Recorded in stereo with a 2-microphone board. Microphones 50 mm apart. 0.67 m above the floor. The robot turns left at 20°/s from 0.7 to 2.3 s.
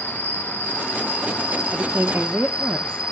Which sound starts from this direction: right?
A woman speaking, at 1.7 s.